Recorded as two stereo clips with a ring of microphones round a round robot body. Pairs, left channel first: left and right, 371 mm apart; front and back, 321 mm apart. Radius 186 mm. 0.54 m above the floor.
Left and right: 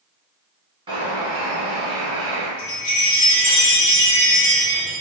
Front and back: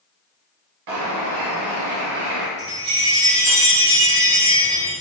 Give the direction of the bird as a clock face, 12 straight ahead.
6 o'clock.